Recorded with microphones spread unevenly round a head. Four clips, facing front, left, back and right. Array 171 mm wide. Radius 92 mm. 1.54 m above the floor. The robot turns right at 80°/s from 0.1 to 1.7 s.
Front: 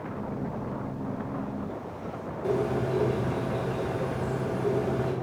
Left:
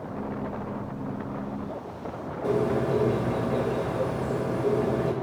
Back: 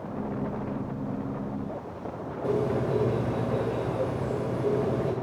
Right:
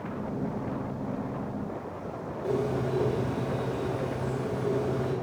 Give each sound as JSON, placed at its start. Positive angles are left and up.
{"t": 2.4, "sound": "a bird", "azimuth_deg": 130, "distance_m": 2.0}